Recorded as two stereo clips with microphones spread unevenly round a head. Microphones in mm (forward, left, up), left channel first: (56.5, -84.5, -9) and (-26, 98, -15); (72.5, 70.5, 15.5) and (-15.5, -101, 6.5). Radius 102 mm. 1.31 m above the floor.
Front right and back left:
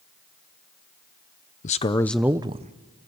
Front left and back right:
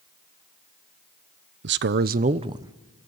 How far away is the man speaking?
About 0.8 m.